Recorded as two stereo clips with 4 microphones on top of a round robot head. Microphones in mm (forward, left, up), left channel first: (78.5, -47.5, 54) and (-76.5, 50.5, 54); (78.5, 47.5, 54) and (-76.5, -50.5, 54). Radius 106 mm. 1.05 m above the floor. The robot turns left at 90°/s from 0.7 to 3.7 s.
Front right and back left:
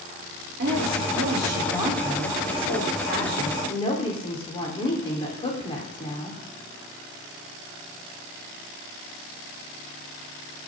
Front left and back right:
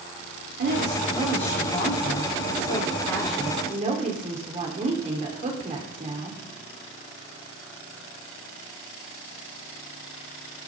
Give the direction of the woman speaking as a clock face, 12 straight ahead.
6 o'clock.